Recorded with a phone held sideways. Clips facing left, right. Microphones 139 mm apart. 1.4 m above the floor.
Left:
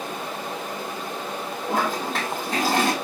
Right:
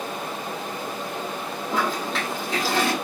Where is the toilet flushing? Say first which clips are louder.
Left 1 dB; 40° left (ahead or behind), 6.5 m.